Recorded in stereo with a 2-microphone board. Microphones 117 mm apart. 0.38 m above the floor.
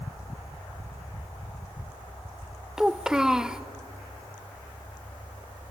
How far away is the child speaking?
About 0.5 m.